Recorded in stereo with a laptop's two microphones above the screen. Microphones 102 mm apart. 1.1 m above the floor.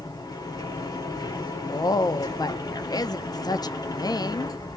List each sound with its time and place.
0.0 s a machine running: 40° left (ahead or behind), 1.4 m
1.7 s a woman speaking: 40° left (ahead or behind), 0.5 m